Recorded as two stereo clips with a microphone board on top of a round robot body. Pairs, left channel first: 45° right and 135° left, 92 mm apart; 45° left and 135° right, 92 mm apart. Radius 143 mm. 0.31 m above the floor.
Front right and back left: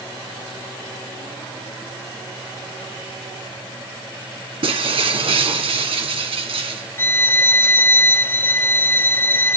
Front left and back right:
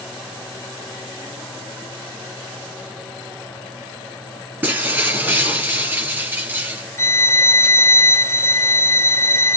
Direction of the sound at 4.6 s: 150° left.